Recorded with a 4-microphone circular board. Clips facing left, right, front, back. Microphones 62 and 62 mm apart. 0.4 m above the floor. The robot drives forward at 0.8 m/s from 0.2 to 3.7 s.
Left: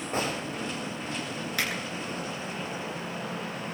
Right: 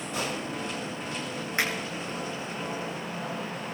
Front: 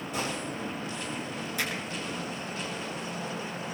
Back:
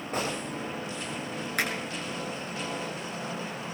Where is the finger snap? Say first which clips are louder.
Right 3 dB, back 4 dB; 150° right, 6.5 m; by 1.7 s 155° right, 6.5 m.